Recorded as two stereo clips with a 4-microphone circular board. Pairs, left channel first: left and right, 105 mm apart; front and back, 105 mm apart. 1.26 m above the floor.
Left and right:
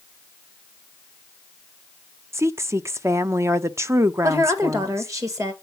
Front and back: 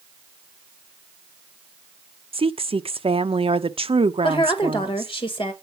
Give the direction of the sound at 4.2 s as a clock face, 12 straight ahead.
1 o'clock.